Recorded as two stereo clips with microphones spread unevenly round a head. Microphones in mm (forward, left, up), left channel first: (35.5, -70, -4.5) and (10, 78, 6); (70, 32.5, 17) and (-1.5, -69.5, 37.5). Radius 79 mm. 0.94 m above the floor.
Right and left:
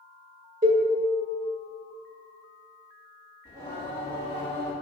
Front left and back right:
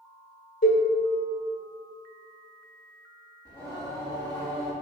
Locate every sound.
0.6 s a cowbell: 70° left, 1.5 m
3.5 s singing: 120° left, 1.6 m